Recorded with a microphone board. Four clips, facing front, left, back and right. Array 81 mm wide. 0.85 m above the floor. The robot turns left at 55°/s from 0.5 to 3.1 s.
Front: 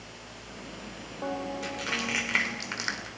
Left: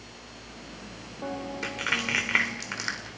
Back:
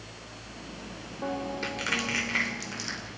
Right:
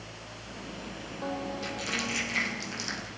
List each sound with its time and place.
1.6 s crushing: 115° left, 2.5 m; by 3.1 s 35° left, 2.5 m